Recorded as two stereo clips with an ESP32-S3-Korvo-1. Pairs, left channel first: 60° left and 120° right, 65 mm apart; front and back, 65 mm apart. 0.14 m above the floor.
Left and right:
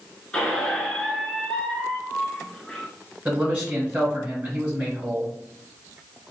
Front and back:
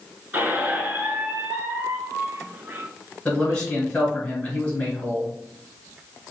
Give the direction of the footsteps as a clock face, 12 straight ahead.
I don't hear footsteps.